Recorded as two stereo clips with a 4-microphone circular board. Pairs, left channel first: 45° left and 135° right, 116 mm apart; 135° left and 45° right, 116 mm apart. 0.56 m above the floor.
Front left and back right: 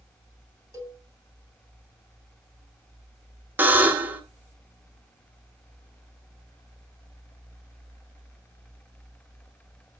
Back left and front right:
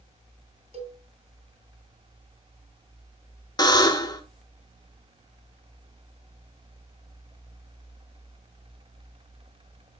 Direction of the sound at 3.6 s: 160° left.